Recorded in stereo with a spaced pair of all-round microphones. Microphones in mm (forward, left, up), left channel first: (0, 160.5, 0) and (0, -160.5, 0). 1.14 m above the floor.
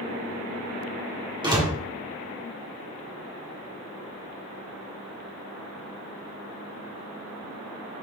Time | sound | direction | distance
1.4 | a door slam | 15° right (ahead or behind) | 1.9 m